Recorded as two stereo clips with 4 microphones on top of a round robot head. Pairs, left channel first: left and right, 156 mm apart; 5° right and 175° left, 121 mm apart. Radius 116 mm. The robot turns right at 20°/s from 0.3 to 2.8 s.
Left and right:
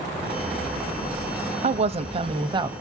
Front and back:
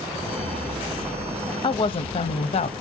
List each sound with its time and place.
1.6 s a woman speaking: 50° right, 0.8 m; by 2.7 s 25° right, 0.8 m